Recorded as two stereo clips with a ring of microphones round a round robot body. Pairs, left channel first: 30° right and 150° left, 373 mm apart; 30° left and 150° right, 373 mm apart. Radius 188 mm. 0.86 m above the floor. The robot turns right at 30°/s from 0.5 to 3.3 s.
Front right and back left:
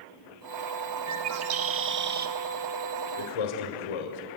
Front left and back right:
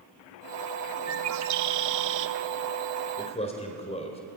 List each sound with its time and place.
1.1 s a bird: 175° left, 1.2 m; by 2.4 s 150° right, 1.2 m
3.2 s a man speaking: 50° right, 3 m; by 4.2 s 45° right, 3 m